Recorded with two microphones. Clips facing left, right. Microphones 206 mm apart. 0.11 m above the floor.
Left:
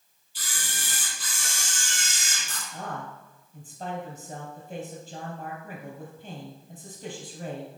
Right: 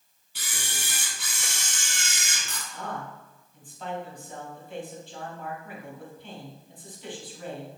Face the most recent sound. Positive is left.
turn(degrees=40)  # may be behind; listen again after turning